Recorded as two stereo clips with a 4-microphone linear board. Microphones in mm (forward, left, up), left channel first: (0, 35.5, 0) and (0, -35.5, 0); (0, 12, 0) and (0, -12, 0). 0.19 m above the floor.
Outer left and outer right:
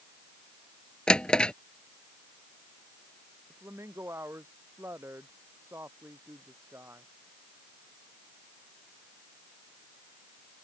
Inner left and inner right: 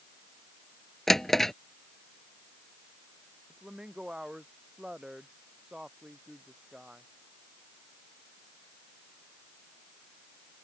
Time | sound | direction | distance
1.1 | a drawer | 15° left (ahead or behind) | ?
3.5 | a woman speaking | 40° right (ahead or behind) | ?